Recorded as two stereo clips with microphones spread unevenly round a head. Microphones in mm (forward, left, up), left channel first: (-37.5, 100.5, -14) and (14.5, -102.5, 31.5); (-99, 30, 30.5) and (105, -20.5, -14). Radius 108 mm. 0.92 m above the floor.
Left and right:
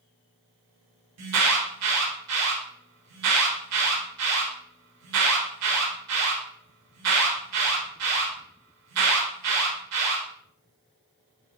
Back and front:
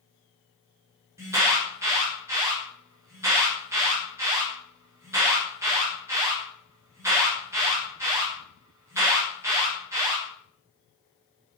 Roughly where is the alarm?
Right.